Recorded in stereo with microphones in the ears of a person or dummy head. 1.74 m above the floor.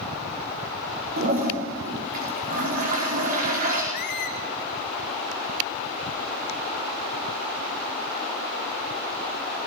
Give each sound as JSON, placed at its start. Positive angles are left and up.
{"t": 1.2, "sound": "a toilet flushing", "side_deg": -45, "distance_m": 5.0}
{"t": 3.9, "sound": "a squeak", "side_deg": 40, "distance_m": 1.8}